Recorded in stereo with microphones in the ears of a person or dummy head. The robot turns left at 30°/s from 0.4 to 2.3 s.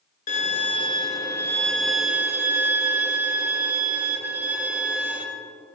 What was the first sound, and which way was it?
A violin, 45° left.